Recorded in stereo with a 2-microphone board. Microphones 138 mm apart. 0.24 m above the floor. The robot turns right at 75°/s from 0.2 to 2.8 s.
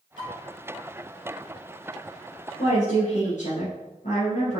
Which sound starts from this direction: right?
Dishes clattering, at 0.2 s.